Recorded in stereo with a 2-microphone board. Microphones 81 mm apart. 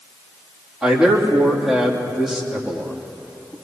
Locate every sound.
0.8 s a man speaking: 10° right (ahead or behind), 3 m